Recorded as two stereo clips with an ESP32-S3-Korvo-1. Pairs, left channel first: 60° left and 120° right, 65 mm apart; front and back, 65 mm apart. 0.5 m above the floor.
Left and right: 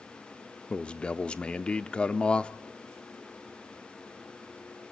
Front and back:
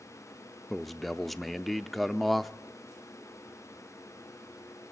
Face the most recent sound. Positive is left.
turn(degrees=80)